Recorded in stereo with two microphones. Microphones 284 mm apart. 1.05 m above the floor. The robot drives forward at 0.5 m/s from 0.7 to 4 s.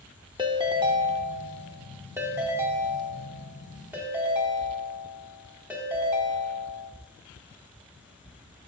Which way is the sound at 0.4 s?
15° right (ahead or behind).